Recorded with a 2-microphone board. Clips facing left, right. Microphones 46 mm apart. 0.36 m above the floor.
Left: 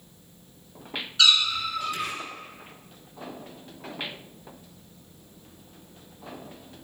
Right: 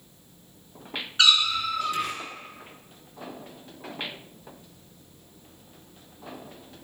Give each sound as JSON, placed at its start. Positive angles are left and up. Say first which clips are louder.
{"t": 1.2, "sound": "a cat meowing", "louder": "even", "side_deg": -30, "distance_m": 0.8}